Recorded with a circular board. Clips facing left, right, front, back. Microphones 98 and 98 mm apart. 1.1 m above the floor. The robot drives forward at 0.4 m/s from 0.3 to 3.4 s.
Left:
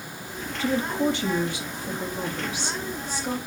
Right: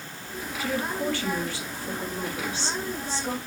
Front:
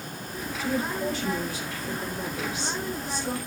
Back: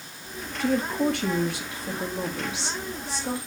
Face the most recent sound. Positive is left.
turn(degrees=165)